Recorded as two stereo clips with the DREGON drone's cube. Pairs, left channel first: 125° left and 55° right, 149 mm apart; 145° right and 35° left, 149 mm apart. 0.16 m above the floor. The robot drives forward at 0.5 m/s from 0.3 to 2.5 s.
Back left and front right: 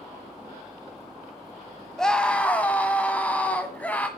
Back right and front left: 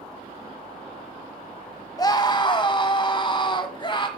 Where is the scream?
155° right, 1.3 m; by 4.1 s 165° right, 1.4 m.